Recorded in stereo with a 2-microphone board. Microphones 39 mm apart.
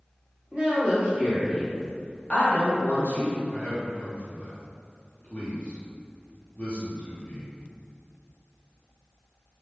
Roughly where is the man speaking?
Left.